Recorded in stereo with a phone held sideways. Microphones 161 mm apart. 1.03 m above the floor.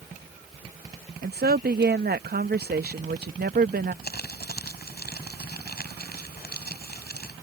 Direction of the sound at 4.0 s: 85° left.